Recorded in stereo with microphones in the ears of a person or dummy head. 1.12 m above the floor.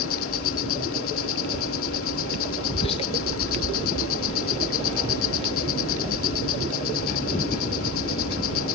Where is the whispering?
30° left (ahead or behind).